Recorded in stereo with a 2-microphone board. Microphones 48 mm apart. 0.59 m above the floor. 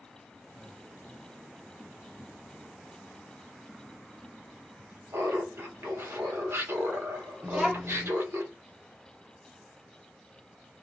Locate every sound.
5.1 s laughter: 65° right (ahead or behind), 1.2 m
7.4 s a child speaking: 40° right (ahead or behind), 0.7 m